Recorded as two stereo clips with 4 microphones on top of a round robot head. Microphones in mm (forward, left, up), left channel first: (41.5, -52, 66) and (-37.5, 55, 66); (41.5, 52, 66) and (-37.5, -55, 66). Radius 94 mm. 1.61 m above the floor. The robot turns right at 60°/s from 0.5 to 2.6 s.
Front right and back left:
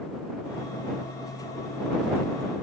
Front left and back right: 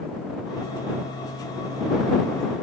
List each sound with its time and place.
Only background noise.